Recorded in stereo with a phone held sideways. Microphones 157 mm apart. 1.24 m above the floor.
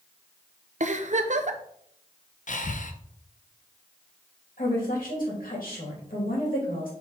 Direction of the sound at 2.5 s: 60° left (ahead or behind).